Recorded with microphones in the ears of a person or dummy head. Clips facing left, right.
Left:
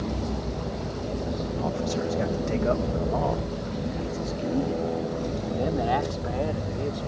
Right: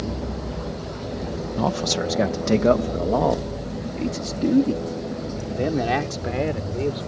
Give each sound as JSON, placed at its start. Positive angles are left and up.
{"t": 1.6, "sound": "a man speaking", "side_deg": -80}